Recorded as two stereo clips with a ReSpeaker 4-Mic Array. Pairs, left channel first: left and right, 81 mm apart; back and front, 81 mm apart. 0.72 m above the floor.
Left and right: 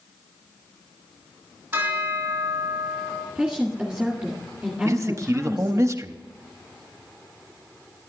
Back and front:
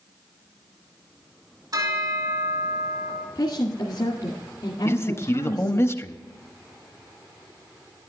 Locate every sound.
1.7 s a bell: 25° right, 2.5 m
3.4 s a woman speaking: 175° right, 2.0 m
4.8 s a man speaking: 135° right, 0.7 m